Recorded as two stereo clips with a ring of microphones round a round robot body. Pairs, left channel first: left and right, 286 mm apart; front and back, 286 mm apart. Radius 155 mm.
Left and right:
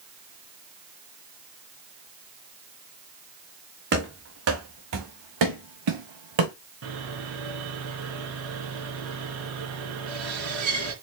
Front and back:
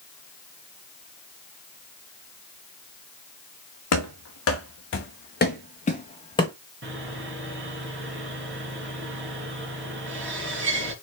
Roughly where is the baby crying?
No baby crying in this recording.